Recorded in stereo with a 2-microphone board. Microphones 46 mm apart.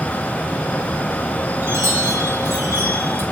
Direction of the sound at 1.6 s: 60° right (ahead or behind).